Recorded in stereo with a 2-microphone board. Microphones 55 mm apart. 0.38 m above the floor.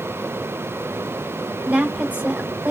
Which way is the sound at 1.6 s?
30° right (ahead or behind).